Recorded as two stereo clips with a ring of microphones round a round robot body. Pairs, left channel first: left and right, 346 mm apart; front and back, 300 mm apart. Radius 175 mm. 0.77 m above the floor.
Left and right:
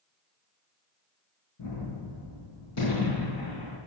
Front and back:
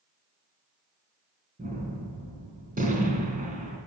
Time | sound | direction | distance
1.6 | a gunshot | 115° left | 3 m